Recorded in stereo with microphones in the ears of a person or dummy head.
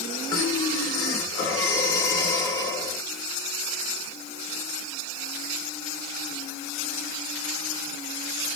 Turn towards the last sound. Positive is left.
turn(degrees=25)  # may be behind; listen again after turning